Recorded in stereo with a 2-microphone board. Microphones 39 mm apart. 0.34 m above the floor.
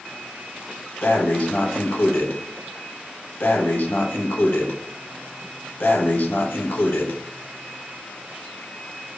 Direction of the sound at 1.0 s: 60° left (ahead or behind).